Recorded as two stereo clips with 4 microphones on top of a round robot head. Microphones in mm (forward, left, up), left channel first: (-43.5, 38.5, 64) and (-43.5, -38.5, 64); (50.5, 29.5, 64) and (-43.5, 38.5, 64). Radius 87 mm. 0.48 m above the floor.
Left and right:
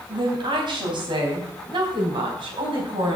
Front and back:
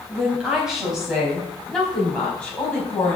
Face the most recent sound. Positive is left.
turn(degrees=-80)